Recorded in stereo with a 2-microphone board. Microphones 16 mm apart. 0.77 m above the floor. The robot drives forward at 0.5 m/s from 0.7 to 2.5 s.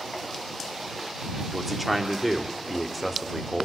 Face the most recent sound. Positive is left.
turn(degrees=0)  # may be behind; listen again after turning